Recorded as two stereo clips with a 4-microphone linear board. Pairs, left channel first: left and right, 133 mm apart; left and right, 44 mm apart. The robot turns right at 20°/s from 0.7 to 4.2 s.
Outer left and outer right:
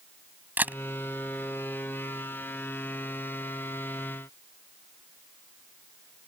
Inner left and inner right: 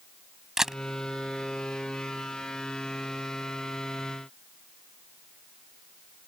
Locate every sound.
0.6 s a camera shutter: 15° right (ahead or behind)